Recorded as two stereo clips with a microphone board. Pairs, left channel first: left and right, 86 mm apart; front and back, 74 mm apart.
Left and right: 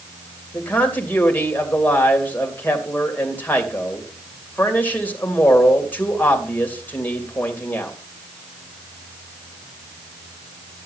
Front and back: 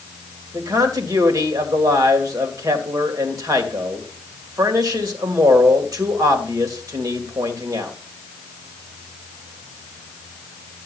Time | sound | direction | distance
0.5 | a man speaking | 155° left | 2.5 m